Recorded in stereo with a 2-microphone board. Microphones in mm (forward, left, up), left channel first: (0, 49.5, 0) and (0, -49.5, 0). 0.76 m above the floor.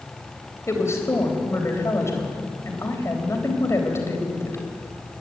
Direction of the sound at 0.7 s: 30° left (ahead or behind).